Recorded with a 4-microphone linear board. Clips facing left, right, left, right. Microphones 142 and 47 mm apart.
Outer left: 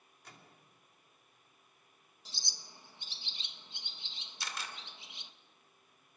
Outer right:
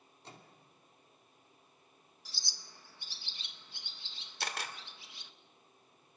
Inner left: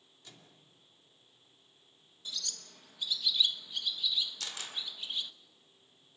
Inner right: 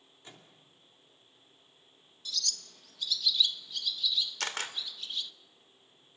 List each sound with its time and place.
0.2 s a microwave: 30° right (ahead or behind), 2.5 m
2.2 s a bird: 20° left (ahead or behind), 1.1 m
4.4 s a camera shutter: 65° right (ahead or behind), 2 m